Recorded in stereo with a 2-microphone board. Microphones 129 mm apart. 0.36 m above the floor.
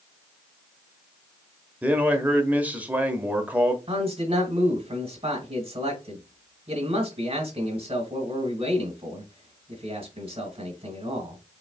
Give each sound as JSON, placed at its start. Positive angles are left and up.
{"t": 1.8, "sound": "a man speaking", "side_deg": -15, "distance_m": 0.9}
{"t": 3.9, "sound": "a man speaking", "side_deg": -45, "distance_m": 1.2}